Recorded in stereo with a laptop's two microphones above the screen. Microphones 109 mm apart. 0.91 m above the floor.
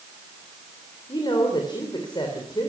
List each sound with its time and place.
1.1 s a woman speaking: 45° left (ahead or behind), 3.5 m